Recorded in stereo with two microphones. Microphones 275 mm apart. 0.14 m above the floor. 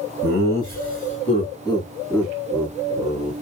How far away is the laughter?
About 2.0 m.